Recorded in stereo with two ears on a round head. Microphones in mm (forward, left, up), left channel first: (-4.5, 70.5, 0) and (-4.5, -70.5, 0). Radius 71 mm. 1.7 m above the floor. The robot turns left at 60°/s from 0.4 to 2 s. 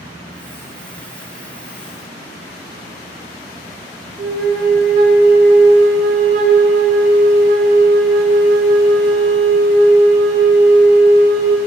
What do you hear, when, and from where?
4.2 s a flute: 60° right (ahead or behind), 1.7 m